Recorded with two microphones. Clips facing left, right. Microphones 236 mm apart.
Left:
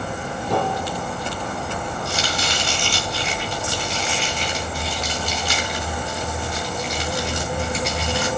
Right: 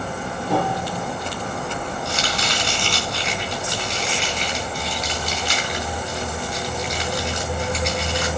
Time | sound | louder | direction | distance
0.5 | a piano | even | 10° right (ahead or behind) | 5 m
2.0 | chopping | even | centre (ahead or behind) | 4 m